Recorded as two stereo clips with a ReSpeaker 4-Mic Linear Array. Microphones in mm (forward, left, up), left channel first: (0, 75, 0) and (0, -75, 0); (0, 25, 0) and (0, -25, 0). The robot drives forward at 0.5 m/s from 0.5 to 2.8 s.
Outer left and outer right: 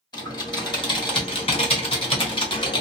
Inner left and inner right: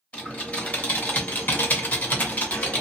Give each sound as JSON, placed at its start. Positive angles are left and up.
{"t": 0.1, "sound": "typing on a keyboard", "side_deg": 30, "distance_m": 1.1}